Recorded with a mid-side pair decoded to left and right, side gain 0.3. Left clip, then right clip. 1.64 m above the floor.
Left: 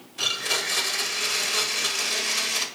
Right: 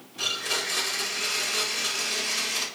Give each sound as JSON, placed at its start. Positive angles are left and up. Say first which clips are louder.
{"t": 0.2, "sound": "a blender", "louder": "left 2 dB", "azimuth_deg": 50, "distance_m": 0.6}